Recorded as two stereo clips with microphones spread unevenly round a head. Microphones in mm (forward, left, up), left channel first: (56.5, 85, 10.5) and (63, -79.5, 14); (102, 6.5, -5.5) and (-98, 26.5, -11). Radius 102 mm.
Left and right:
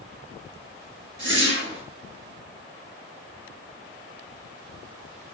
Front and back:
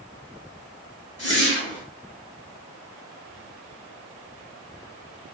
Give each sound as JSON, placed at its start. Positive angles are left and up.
{"t": 1.2, "sound": "a whoosh", "azimuth_deg": -75, "distance_m": 1.6}